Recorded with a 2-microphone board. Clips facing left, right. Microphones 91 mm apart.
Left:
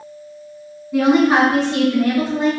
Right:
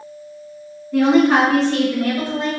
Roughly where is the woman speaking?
Centre.